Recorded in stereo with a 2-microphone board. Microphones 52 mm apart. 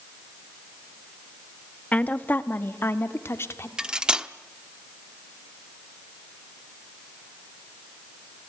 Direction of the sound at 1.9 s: 25° left (ahead or behind).